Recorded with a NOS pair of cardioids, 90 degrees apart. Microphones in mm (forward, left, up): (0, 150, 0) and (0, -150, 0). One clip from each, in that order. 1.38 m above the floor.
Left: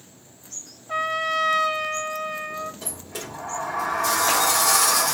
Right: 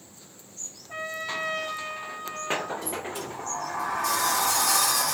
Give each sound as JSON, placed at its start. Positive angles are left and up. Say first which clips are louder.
{"t": 0.9, "sound": "a trumpet", "louder": "left 9 dB", "azimuth_deg": 65, "distance_m": 0.8}
{"t": 2.8, "sound": "a sliding door", "louder": "right 3 dB", "azimuth_deg": 55, "distance_m": 1.4}